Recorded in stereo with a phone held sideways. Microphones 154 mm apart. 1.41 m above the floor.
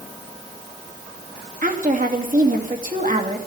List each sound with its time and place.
1.6 s a woman speaking: 60° right (ahead or behind), 2.5 m